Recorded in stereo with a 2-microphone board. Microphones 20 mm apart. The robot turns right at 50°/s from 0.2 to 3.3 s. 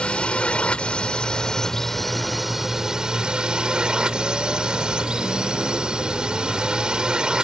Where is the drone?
80° left; by 7.4 s 125° right.